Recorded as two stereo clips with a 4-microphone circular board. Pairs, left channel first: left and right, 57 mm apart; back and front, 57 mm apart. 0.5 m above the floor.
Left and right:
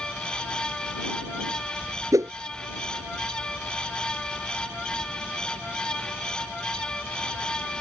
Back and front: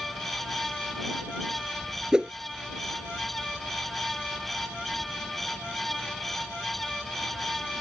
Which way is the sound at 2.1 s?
75° right.